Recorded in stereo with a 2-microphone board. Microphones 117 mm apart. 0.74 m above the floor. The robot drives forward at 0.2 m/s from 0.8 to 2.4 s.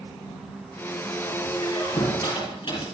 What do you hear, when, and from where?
1.6 s a squeak: 55° left (ahead or behind), 6 m